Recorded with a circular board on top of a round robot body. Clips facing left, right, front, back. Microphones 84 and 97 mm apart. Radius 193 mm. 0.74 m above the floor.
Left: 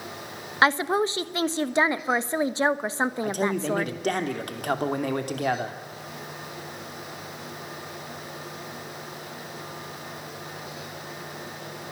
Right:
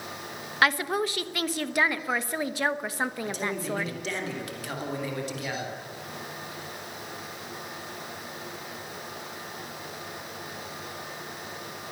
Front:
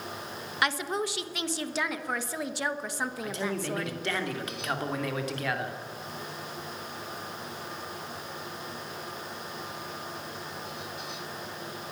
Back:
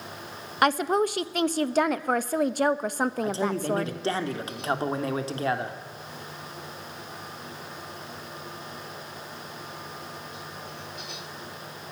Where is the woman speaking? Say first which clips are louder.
Left 3 dB, back 7 dB; 150° left, 1.3 m.